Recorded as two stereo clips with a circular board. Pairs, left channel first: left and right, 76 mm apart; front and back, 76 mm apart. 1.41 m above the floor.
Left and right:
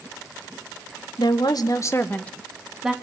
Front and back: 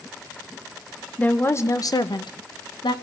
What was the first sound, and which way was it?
A woman speaking, 70° left.